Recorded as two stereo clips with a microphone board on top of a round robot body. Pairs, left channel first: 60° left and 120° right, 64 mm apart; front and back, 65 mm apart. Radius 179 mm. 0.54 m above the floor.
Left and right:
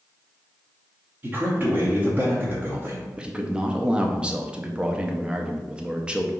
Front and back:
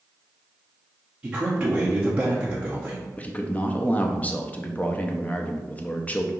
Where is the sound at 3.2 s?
55° right, 0.7 m.